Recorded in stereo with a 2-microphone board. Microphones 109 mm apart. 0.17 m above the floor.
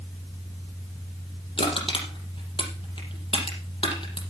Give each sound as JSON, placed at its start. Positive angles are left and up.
{"t": 1.6, "sound": "crushing", "side_deg": 50, "distance_m": 5.0}